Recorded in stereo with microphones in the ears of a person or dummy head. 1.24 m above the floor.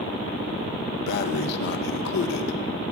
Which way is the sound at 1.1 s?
65° left (ahead or behind).